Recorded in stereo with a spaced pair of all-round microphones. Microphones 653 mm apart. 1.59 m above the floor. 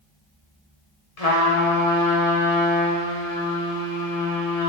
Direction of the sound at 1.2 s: 75° left (ahead or behind).